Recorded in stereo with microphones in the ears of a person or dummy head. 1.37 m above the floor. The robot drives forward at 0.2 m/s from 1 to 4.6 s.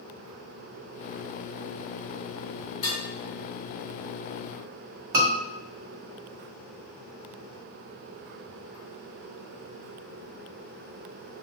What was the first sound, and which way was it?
Dishes clattering, 35° left (ahead or behind).